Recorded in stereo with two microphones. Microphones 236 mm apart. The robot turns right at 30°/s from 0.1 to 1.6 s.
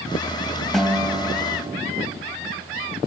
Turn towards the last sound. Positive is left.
turn(degrees=-25)  # may be behind; listen again after turning